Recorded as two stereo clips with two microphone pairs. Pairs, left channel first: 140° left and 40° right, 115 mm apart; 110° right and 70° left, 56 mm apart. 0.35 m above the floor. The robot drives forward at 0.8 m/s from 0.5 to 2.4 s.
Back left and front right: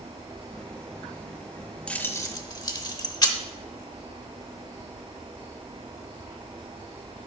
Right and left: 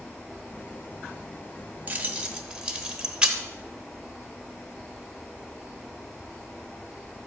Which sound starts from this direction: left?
Keys jangling, at 1.9 s.